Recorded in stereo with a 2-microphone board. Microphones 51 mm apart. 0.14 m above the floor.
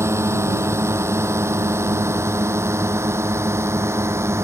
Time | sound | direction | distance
0.0 | a drone | 65° right (ahead or behind) | ?